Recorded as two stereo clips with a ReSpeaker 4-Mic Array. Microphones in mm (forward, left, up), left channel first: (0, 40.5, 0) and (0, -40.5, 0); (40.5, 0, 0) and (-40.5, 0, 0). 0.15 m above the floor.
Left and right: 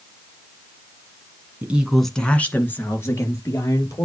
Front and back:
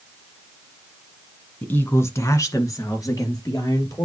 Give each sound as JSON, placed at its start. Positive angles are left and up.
{"t": 1.6, "sound": "a woman speaking", "azimuth_deg": -50, "distance_m": 1.2}